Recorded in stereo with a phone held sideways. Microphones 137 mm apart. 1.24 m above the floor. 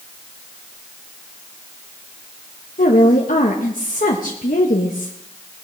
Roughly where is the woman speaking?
Left.